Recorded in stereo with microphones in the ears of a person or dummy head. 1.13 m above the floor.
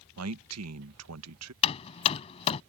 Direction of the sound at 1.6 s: 30° left (ahead or behind).